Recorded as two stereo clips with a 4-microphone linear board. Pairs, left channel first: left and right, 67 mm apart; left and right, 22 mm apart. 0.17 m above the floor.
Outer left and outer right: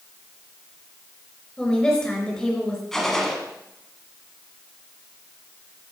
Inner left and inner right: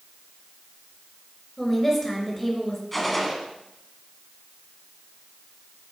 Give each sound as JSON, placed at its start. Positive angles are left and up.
{"t": 1.6, "sound": "a woman speaking", "side_deg": 10, "distance_m": 2.5}
{"t": 2.9, "sound": "a gunshot", "side_deg": 5, "distance_m": 1.7}